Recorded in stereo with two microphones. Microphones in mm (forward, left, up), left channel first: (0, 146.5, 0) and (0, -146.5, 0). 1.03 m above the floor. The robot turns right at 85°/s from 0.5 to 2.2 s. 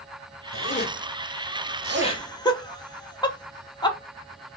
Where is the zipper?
50° left (ahead or behind), 0.6 m; by 2.2 s 55° right (ahead or behind), 0.6 m.